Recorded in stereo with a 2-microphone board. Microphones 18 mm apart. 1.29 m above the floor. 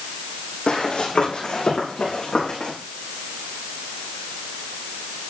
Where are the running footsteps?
65° left (ahead or behind), 4 m; by 2.7 s 75° left (ahead or behind), 4.5 m.